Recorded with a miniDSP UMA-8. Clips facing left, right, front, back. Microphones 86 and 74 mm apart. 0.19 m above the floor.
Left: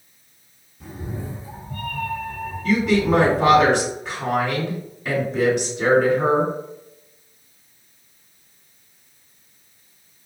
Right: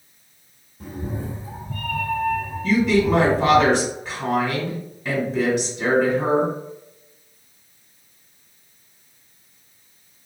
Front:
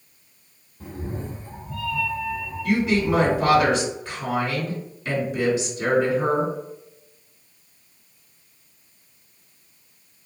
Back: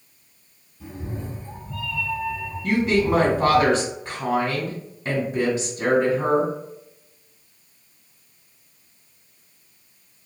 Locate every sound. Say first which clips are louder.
0.8 s a cat meowing: right 3 dB, front 1 dB; 50° right, 1.7 m; by 3.6 s 115° right, 2 m
2.6 s a woman speaking: right 1 dB, back 1 dB; 175° right, 1.9 m